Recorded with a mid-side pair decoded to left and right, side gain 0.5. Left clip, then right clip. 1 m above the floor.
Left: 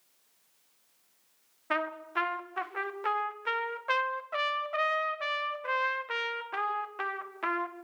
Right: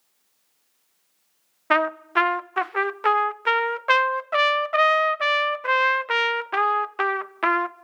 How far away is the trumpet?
About 0.8 m.